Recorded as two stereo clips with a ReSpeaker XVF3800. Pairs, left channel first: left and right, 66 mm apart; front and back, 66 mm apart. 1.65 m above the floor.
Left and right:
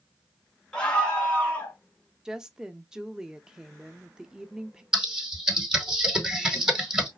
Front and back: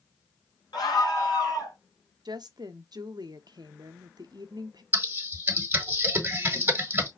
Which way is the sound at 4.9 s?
160° right.